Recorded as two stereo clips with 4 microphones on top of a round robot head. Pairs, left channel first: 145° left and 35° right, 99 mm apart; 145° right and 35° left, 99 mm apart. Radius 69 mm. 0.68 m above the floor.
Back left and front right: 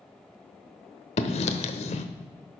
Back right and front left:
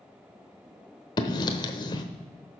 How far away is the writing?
About 0.8 m.